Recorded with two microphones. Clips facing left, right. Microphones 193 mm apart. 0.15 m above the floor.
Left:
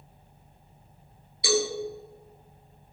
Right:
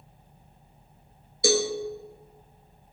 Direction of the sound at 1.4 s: 50° right (ahead or behind).